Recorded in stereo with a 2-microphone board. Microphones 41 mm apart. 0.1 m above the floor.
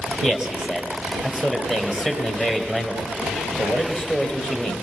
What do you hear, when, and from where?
0.2 s a man speaking: 15° right (ahead or behind), 3 m